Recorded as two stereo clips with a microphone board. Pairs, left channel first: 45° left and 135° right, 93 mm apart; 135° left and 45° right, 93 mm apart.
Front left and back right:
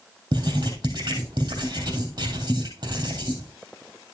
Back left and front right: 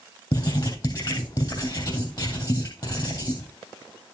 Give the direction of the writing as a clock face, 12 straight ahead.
6 o'clock.